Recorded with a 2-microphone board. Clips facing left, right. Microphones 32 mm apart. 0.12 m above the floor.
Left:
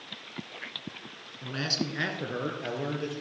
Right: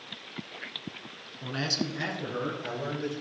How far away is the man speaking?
About 1.0 m.